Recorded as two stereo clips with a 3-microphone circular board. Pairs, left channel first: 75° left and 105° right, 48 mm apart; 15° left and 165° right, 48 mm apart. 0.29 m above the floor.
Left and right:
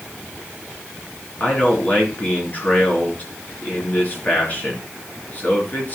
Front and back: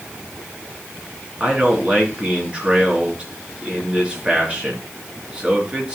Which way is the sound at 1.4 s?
130° left.